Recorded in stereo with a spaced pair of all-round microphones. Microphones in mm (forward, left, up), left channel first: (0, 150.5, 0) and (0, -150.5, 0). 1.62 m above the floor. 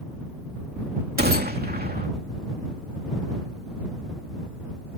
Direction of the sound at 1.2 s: 30° right (ahead or behind).